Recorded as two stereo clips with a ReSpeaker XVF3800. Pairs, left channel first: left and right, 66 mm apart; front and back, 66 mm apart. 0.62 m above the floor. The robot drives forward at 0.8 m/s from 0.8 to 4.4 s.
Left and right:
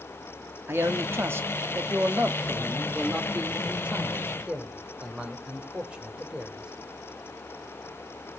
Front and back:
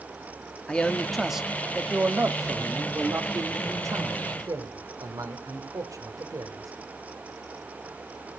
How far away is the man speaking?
About 1.4 m.